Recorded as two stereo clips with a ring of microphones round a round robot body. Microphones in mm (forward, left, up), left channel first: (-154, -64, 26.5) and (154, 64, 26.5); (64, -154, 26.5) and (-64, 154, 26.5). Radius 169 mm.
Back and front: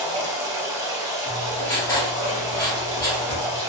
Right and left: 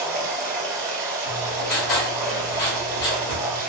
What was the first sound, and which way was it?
Running water, 65° left.